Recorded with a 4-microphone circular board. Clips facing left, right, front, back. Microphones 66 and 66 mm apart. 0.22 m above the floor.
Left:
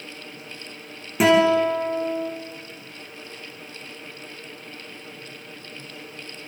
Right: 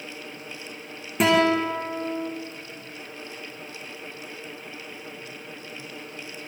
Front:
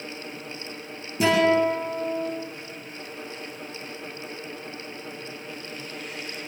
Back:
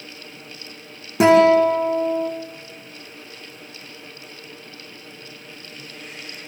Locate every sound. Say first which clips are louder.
1.2 s a guitar: left 3 dB, back 7 dB; 175° left, 6 m